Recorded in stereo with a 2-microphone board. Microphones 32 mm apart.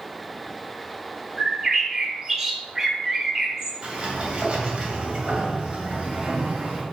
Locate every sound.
1.4 s a bird: 15° right (ahead or behind), 1.2 m
3.8 s a sliding door: 35° right (ahead or behind), 2 m